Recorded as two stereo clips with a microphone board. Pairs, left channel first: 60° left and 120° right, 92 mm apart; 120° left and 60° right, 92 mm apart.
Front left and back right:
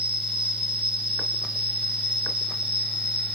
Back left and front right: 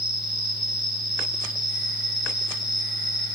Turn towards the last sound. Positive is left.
turn(degrees=-95)